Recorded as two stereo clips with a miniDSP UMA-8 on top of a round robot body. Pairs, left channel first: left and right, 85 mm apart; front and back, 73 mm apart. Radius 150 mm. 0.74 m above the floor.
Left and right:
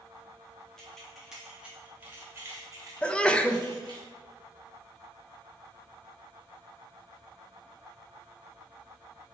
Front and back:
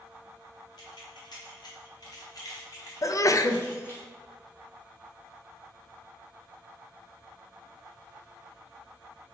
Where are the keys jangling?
5° left, 1.3 m; by 4.0 s 60° right, 1.6 m.